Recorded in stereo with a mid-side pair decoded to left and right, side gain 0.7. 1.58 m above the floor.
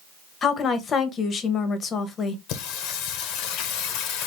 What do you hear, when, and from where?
0.4 s a woman speaking: 35° left, 1.5 m
2.5 s singing: 65° left, 1.1 m